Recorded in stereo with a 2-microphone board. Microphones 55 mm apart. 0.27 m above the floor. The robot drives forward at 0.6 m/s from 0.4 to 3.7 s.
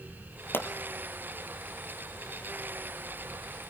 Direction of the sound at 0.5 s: 40° left (ahead or behind).